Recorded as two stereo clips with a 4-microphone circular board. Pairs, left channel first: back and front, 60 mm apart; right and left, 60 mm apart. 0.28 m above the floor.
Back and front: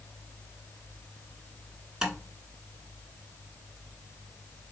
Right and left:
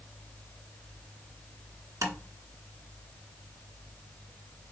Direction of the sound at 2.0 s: 80° left.